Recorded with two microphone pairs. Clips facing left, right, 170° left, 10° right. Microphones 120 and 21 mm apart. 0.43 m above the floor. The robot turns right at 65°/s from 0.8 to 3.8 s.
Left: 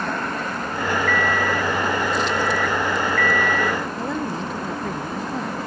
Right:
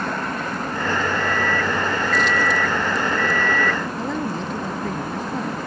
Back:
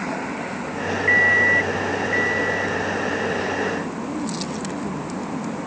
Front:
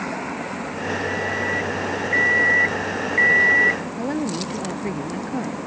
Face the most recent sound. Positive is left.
turn(degrees=0)